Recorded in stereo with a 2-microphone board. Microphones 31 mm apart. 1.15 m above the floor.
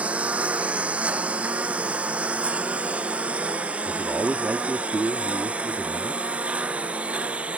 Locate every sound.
0.0 s a lawn mower: 50° right (ahead or behind)
3.9 s a man speaking: 75° right (ahead or behind)